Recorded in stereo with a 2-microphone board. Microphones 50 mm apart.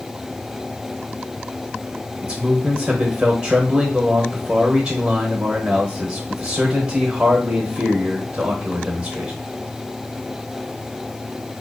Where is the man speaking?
20° right (ahead or behind), 0.8 m.